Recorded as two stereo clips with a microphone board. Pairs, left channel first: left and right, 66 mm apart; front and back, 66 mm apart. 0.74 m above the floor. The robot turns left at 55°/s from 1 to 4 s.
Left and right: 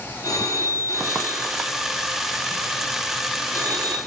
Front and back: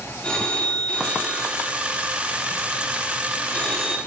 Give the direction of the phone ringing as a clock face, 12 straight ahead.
10 o'clock.